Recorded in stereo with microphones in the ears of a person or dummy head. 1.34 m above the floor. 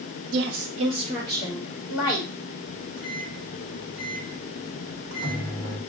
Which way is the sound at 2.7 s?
60° right (ahead or behind).